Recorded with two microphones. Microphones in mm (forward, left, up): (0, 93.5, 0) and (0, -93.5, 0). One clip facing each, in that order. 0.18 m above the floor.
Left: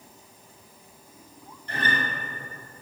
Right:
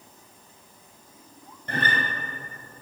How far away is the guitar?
About 1.5 m.